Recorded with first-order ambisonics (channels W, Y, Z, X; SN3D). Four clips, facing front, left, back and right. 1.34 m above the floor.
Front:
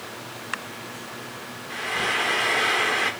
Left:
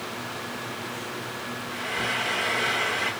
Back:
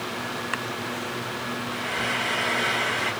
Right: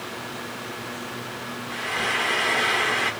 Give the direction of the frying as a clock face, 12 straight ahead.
1 o'clock.